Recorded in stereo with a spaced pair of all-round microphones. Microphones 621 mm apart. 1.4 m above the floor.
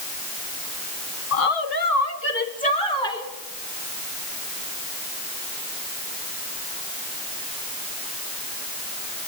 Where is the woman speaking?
65° left (ahead or behind), 0.8 m; by 3.3 s 5° left (ahead or behind), 3 m.